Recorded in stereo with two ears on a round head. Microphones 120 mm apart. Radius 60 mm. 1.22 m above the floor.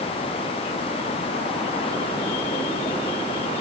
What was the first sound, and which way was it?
Only background noise.